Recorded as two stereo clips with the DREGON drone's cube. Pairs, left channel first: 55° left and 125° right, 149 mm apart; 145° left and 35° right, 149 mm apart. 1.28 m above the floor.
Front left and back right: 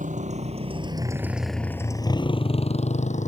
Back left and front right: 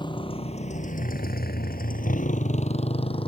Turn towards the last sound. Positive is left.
turn(degrees=90)